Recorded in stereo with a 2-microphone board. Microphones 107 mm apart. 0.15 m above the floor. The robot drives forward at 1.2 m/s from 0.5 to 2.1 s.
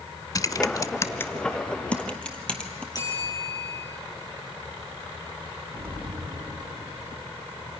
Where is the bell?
35° left (ahead or behind), 4 m.